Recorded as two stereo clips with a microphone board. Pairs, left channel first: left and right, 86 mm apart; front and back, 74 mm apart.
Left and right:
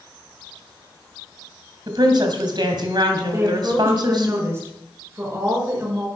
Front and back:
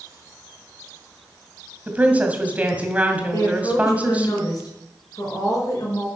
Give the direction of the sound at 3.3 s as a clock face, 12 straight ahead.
1 o'clock.